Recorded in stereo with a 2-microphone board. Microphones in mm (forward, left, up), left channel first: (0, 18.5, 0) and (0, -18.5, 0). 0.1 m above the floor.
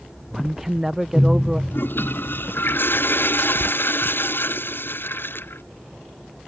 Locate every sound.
0.3 s a man speaking: 10° right (ahead or behind)
1.7 s a toilet flushing: 70° left (ahead or behind)